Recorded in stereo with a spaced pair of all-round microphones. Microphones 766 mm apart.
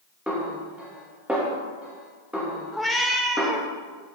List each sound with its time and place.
0.3 s a snare drum: centre (ahead or behind), 1.9 m
2.7 s a cat meowing: centre (ahead or behind), 0.7 m